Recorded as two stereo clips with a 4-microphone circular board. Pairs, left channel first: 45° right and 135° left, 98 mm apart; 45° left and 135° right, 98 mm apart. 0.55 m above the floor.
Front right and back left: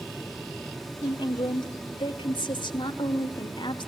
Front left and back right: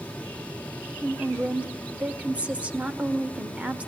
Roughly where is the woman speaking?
Ahead right.